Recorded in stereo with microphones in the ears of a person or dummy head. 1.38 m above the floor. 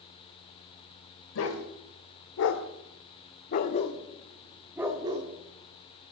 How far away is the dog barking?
About 2.5 m.